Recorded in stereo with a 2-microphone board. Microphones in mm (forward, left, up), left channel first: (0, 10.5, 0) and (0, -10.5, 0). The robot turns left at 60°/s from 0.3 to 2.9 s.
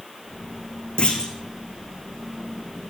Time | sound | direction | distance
1.0 | a clunk | 60° left (ahead or behind) | 3.5 m